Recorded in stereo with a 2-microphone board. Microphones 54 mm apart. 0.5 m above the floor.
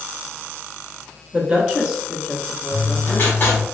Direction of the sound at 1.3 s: 25° right (ahead or behind).